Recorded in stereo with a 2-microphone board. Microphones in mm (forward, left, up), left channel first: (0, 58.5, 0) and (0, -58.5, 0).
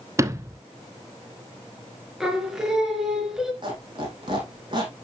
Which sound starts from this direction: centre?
Singing, at 2.2 s.